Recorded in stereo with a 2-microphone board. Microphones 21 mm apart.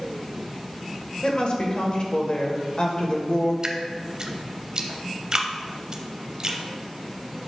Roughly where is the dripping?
Right.